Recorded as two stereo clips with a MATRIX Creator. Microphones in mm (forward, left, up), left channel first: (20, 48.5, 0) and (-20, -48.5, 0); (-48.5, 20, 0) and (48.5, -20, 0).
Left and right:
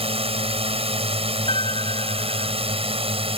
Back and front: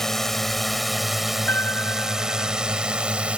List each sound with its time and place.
0.0 s a drone: 115° right; by 3.4 s 100° right
1.5 s a piano: 90° left